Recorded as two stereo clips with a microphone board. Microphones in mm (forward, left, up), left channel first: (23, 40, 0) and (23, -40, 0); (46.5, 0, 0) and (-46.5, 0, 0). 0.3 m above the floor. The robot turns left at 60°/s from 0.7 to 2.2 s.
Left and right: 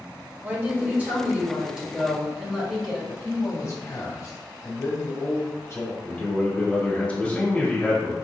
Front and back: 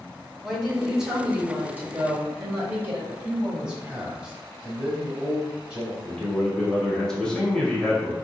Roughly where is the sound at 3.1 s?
Left.